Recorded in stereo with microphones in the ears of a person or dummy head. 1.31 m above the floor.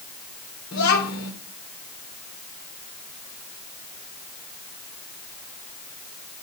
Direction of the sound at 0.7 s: 70° left (ahead or behind).